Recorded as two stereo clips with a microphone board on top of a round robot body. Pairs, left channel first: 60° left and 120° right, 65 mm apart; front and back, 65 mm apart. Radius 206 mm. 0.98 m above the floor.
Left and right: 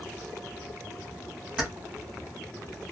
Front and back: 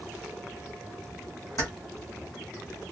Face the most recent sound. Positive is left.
turn(degrees=-40)